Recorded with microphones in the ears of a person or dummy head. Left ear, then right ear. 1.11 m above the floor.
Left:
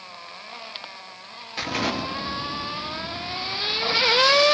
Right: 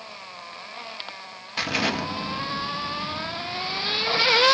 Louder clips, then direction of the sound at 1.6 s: Right 1 dB; 10° right (ahead or behind).